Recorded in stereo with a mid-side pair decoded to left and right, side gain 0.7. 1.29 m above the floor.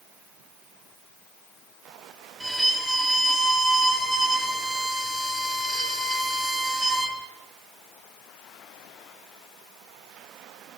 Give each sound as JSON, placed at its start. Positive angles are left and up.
{"t": 2.4, "sound": "a violin", "azimuth_deg": -5, "distance_m": 1.7}